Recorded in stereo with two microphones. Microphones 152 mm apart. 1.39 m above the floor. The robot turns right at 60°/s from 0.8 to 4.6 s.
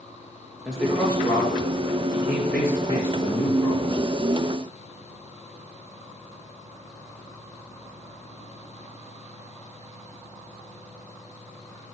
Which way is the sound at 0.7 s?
5° right (ahead or behind).